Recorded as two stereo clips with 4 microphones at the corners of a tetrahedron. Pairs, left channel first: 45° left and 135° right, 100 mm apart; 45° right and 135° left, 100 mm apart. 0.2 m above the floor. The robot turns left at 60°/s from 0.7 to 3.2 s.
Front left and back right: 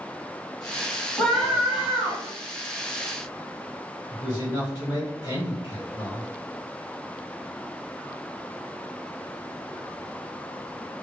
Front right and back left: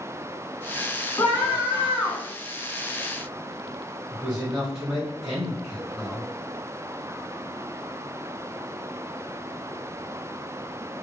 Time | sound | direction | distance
1.2 | a scream | 25° right | 1.2 m
4.1 | a man speaking | 55° left | 1.8 m